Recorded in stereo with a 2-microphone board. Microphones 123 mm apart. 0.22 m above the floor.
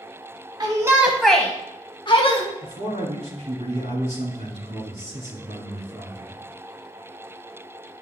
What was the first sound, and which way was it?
A shout, 35° right (ahead or behind).